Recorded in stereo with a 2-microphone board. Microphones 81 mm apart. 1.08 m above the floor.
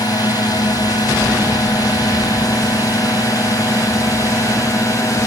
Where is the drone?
55° left (ahead or behind); by 5.3 s 40° left (ahead or behind).